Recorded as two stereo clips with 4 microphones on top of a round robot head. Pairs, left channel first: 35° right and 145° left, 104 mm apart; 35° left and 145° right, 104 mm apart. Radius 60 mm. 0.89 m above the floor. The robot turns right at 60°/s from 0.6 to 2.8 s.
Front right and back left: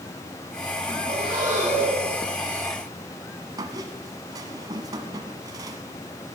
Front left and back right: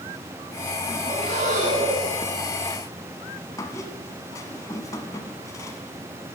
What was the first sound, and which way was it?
Breathing, 175° left.